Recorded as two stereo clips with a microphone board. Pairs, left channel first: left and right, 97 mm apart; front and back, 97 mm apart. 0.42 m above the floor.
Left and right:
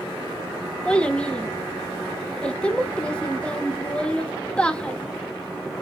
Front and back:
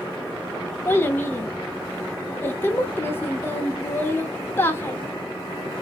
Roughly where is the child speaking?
Ahead left.